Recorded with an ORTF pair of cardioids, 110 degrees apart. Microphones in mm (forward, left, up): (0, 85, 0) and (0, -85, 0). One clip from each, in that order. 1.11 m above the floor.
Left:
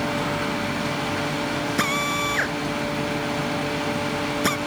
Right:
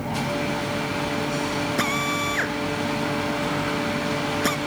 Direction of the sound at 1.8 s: 10° left.